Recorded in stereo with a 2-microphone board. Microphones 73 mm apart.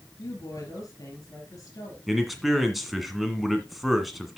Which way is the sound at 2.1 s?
Centre (ahead or behind).